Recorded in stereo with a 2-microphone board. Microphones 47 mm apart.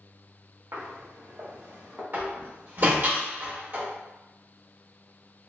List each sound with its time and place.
0.7 s footsteps: 60° right (ahead or behind), 1.6 m; by 2.0 s 30° right (ahead or behind), 1.3 m
2.1 s a door slam: 50° right (ahead or behind), 1.3 m